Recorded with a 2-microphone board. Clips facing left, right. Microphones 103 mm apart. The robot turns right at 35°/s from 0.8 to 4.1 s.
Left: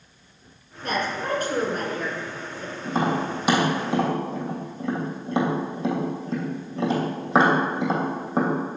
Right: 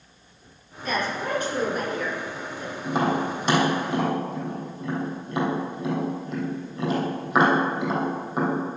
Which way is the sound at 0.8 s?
60° left (ahead or behind).